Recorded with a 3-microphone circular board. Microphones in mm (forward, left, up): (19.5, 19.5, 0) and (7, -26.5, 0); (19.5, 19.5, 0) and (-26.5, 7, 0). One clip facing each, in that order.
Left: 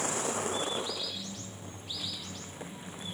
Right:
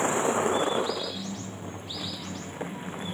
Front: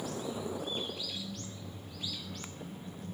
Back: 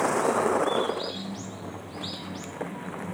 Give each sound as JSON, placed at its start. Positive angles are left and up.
{"t": 0.0, "sound": "a vehicle", "azimuth_deg": -170}